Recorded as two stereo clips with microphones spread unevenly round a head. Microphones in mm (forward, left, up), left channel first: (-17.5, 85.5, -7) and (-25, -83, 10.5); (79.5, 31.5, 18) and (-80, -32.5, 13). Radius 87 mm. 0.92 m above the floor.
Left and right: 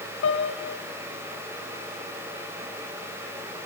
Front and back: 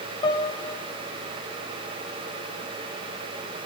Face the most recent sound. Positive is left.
turn(degrees=90)